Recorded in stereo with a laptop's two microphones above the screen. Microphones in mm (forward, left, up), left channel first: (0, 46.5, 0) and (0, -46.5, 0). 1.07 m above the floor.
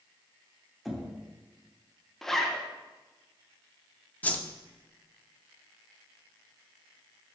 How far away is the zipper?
About 0.9 m.